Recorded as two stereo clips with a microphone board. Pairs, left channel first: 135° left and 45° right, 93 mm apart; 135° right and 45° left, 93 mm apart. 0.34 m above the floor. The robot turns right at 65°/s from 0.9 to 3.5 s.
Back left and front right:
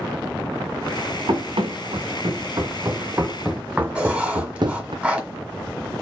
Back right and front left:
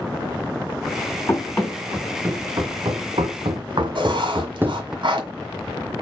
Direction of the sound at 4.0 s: 35° left.